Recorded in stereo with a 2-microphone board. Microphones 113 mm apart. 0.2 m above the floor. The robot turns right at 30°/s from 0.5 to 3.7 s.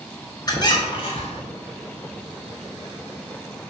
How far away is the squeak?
About 0.5 m.